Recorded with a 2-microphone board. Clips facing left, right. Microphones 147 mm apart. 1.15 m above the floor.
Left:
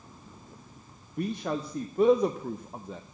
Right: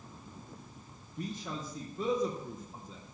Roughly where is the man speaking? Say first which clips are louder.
Left 8 dB; left.